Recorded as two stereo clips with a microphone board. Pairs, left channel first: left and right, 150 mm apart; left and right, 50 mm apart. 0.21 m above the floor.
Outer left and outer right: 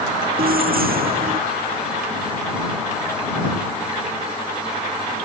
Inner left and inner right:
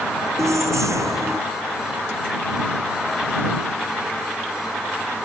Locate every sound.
0.4 s keys jangling: 80° right